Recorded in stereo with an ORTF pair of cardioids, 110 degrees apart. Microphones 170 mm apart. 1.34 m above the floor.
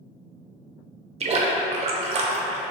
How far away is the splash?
About 0.7 m.